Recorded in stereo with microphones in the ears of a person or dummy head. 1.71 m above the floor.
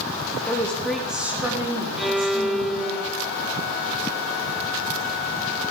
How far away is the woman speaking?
About 3.5 m.